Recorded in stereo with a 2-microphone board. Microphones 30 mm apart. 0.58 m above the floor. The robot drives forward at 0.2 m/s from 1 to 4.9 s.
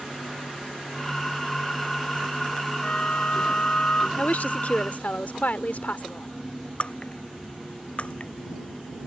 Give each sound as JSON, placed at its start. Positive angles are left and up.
{"t": 2.8, "sound": "a flute", "side_deg": 60}
{"t": 4.2, "sound": "a woman speaking", "side_deg": 65}
{"t": 6.8, "sound": "breaking glass", "side_deg": 45}